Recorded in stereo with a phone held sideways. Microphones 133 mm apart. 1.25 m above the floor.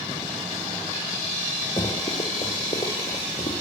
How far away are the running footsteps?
About 6 m.